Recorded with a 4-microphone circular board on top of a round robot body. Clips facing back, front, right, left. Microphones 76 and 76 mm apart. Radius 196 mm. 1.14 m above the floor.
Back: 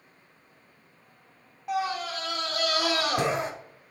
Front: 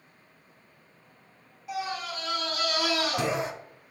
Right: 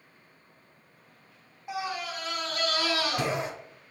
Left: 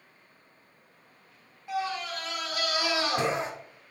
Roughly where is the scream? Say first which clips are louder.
Back 4 dB, left 2 dB; behind.